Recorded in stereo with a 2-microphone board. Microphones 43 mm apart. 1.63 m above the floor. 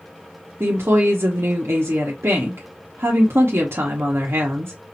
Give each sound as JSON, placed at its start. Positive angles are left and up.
{"t": 0.6, "sound": "a woman speaking", "side_deg": -80, "distance_m": 1.0}